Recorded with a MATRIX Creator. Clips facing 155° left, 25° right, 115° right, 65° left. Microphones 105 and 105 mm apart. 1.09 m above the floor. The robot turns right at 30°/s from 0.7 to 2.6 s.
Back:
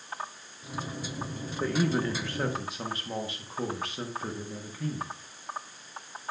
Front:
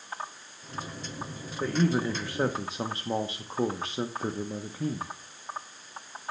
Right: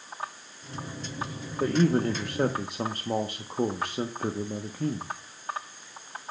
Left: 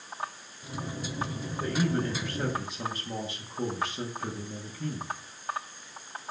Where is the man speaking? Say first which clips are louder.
Front 1 dB, right 6 dB; 110° right, 0.8 m; by 5.1 s 80° right, 0.8 m.